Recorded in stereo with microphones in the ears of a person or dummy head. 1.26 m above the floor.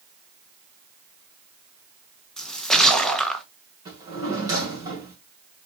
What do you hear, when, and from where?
2.4 s a splash: 5° left (ahead or behind), 0.7 m
3.9 s a drawer: 20° right (ahead or behind), 2 m